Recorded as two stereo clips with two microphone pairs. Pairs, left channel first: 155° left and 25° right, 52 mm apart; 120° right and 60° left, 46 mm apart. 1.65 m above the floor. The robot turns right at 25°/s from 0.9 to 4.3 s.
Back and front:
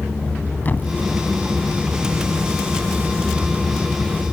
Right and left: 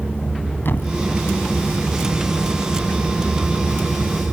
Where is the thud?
155° right; by 0.9 s 150° right.